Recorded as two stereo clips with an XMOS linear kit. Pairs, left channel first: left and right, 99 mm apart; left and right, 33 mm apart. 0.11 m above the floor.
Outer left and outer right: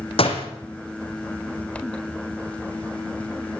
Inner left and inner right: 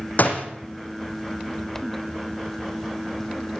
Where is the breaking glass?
No breaking glass in this recording.